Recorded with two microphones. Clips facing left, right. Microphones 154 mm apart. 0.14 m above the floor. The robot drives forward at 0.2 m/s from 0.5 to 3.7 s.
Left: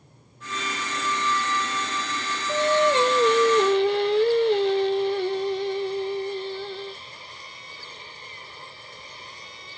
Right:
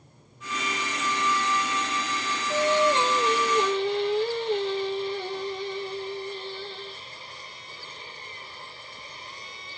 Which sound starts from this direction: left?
Singing, at 2.5 s.